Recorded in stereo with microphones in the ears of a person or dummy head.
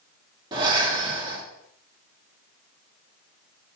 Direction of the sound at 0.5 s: 25° right (ahead or behind).